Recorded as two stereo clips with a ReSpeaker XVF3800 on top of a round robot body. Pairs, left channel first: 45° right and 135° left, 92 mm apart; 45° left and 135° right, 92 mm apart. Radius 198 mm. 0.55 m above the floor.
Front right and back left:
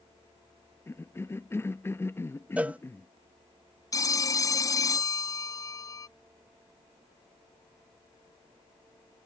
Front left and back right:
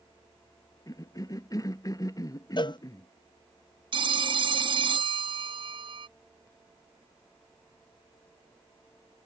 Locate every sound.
0.9 s a cough: 10° left
2.6 s a cowbell: 65° left
3.9 s a phone ringing: 100° right